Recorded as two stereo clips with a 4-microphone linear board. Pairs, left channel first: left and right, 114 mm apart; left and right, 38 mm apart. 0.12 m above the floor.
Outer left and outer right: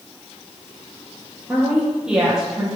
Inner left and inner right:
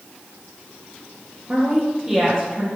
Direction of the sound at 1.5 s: 10° right (ahead or behind).